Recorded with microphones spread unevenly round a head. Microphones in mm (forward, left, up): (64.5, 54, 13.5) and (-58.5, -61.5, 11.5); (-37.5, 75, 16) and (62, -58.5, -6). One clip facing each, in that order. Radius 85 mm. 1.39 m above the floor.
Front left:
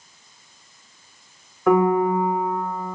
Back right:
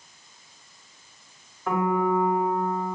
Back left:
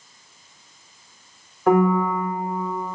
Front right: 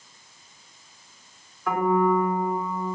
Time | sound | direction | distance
1.7 | a piano | 75° left | 5.5 m